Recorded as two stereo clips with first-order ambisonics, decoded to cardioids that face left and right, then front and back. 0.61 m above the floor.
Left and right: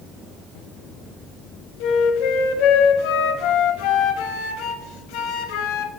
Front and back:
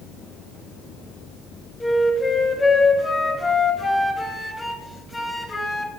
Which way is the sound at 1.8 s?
80° left.